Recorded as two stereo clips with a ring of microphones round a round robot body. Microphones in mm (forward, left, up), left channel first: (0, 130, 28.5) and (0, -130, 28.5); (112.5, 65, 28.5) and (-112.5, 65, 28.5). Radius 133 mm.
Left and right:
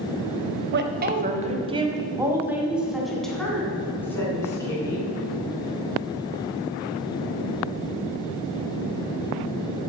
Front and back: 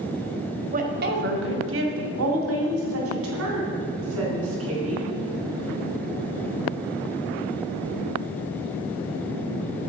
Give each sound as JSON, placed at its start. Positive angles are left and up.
{"t": 0.7, "sound": "a woman speaking", "azimuth_deg": -130, "distance_m": 1.7}